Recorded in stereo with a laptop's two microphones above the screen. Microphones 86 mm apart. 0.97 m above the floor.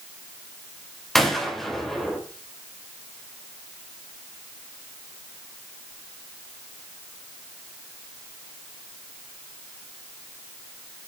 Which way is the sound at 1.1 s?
5° left (ahead or behind).